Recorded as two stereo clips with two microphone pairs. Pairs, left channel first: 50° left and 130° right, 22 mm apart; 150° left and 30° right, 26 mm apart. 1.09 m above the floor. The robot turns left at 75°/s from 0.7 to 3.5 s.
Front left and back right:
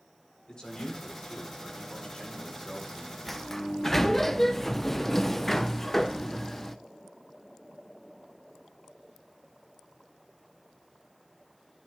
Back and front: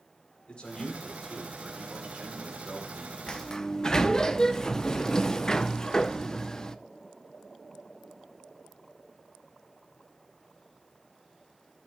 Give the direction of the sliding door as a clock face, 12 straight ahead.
7 o'clock.